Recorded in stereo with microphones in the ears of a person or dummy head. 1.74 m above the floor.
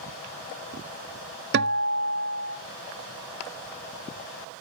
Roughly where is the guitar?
Right.